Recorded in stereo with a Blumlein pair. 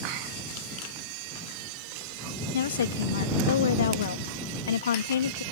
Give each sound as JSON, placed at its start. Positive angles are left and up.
{"t": 2.5, "sound": "a woman speaking", "azimuth_deg": 65}